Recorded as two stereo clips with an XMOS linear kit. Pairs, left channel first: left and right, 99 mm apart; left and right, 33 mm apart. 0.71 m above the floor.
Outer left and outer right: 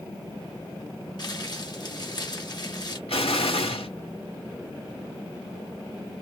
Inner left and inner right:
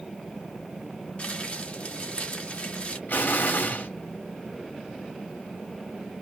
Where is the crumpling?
45° left (ahead or behind), 1.5 m.